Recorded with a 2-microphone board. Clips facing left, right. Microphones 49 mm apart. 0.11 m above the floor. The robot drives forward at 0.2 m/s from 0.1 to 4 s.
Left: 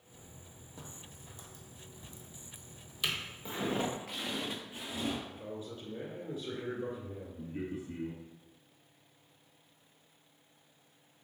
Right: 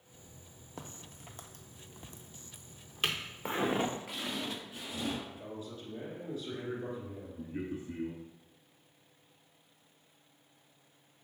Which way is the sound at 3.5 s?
50° right (ahead or behind).